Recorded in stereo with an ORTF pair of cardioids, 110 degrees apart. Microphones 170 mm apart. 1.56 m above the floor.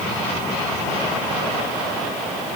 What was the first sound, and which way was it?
Only background noise.